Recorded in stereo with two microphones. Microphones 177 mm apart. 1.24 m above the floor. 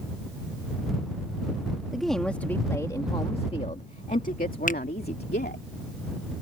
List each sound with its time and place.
1.9 s a woman speaking: centre (ahead or behind); by 5.6 s 70° left (ahead or behind)
4.7 s a finger snap: 50° left (ahead or behind)